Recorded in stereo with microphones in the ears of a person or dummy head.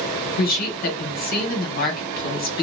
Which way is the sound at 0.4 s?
45° left (ahead or behind).